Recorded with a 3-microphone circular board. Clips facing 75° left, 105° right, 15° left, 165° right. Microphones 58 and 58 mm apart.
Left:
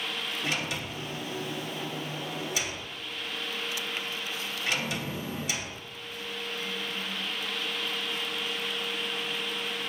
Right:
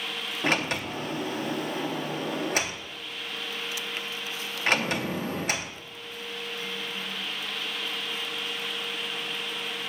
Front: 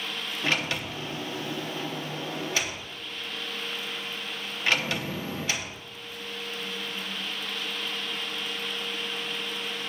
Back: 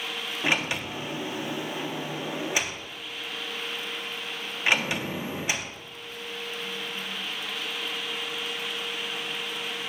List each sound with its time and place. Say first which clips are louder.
0.4 s a sliding door: right 9 dB, back 2 dB; 95° right, 0.7 m